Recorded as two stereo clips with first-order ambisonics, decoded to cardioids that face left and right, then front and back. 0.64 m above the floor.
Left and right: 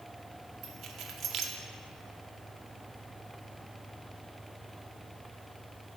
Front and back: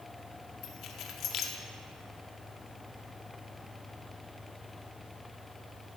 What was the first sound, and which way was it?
Keys jangling, 40° right.